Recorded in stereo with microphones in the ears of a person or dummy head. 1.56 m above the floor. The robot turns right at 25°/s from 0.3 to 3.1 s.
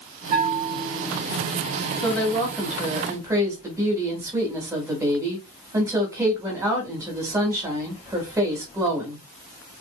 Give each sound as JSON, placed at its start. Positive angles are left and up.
{"t": 0.3, "sound": "a bell", "side_deg": -25, "distance_m": 2.0}
{"t": 2.0, "sound": "a woman speaking", "side_deg": 10, "distance_m": 1.9}